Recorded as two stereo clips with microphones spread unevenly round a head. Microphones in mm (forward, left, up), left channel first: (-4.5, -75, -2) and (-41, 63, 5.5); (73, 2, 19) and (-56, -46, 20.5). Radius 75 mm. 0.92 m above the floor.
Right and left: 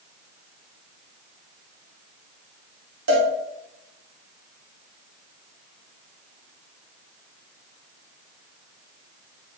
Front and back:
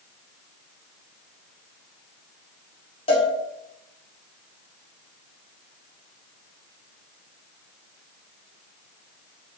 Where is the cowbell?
80° left, 2.0 m.